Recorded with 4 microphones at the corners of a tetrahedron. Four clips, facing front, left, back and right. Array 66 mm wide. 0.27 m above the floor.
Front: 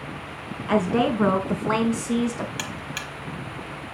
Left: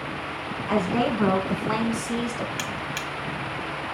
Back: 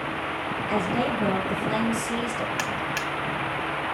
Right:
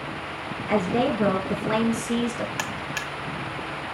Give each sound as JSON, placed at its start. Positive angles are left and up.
{"t": 0.7, "sound": "a woman speaking", "azimuth_deg": 20, "distance_m": 3.0}
{"t": 2.6, "sound": "a buzzer", "azimuth_deg": -125, "distance_m": 1.1}